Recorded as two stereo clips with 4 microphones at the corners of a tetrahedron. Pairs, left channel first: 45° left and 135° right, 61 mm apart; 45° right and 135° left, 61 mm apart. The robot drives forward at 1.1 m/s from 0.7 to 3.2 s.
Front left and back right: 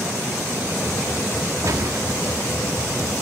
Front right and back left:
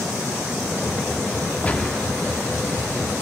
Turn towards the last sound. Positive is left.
turn(degrees=-145)